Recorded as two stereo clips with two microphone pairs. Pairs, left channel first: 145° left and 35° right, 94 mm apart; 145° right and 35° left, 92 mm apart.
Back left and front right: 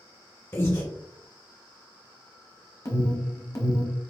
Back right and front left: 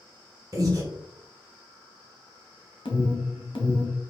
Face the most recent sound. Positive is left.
turn(degrees=-170)